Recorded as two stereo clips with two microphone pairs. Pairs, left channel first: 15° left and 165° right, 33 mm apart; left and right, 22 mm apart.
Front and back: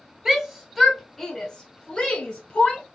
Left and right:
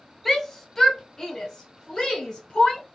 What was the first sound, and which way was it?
A shout, 145° left.